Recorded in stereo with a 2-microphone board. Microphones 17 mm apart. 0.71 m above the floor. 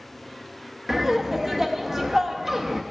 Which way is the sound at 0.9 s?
20° right (ahead or behind).